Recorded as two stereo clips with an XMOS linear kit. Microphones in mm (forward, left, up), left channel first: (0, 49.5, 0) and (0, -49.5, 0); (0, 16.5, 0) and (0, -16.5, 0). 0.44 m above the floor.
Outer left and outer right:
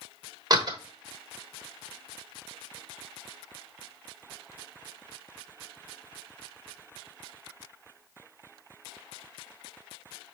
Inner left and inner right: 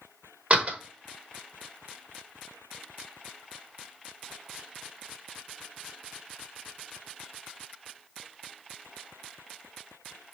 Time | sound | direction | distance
0.5 | a door slam | 45° right (ahead or behind) | 1.0 m